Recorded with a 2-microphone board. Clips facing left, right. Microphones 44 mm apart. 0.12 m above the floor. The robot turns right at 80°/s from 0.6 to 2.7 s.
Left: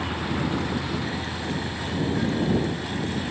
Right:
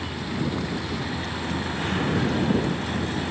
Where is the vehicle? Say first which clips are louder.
Left 2 dB; 30° left (ahead or behind); by 3.3 s 65° right (ahead or behind).